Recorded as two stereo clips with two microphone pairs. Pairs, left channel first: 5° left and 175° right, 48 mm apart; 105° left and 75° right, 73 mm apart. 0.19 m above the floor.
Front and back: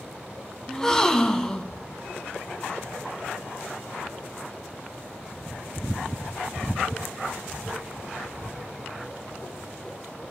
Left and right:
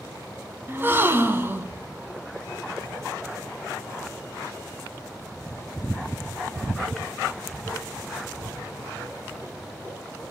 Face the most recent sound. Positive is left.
turn(degrees=-60)